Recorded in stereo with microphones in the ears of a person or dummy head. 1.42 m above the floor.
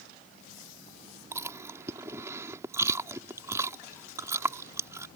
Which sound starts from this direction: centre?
Chewing, at 1.3 s.